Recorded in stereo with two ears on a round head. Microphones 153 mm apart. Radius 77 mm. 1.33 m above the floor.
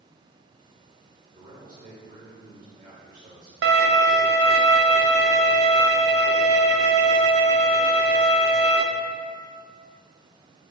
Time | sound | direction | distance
1.3 | a man speaking | 45° right (ahead or behind) | 3 m
3.6 | a violin | 75° right (ahead or behind) | 0.7 m